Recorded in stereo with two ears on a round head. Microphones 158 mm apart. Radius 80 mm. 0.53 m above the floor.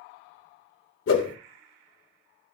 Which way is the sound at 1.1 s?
85° left.